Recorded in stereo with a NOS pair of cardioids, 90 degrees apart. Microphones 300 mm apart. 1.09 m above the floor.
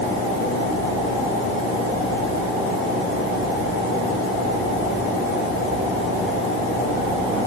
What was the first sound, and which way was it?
Only background noise.